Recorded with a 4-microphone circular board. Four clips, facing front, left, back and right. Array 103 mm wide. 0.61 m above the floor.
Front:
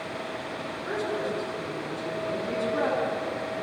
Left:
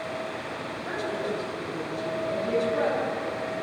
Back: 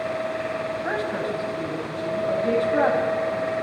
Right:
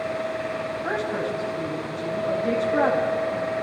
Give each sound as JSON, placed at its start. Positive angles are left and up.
{"t": 0.8, "sound": "a woman speaking", "azimuth_deg": -155, "distance_m": 4.0}